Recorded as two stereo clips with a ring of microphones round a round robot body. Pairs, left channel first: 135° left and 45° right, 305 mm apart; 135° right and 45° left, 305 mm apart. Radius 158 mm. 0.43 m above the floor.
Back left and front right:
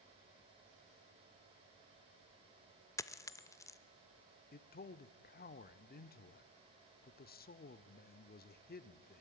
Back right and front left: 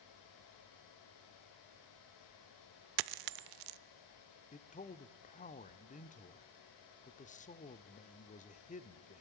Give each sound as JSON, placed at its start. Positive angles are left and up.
{"t": 3.0, "sound": "a dropped coin", "azimuth_deg": 55, "distance_m": 0.5}
{"t": 4.5, "sound": "a man speaking", "azimuth_deg": 175, "distance_m": 0.9}